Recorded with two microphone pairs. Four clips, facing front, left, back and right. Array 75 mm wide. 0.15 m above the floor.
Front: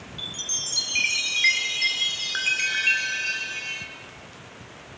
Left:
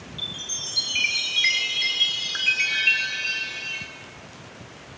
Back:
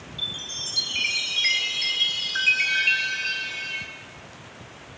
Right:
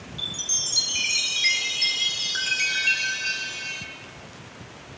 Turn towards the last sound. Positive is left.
turn(degrees=25)